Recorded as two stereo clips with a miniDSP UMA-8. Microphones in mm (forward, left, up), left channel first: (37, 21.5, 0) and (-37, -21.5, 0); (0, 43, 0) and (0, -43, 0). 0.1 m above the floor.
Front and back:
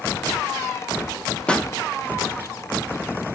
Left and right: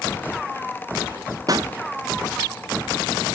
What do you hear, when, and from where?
1.5 s a pop: 45° right, 1.1 m